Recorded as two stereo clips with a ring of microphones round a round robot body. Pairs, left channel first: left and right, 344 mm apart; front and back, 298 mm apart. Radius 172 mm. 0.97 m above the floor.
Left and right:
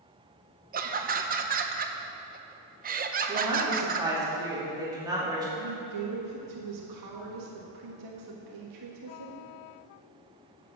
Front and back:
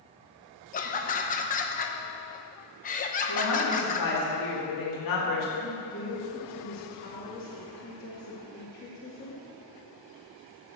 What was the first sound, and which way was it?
Laughter, 45° right.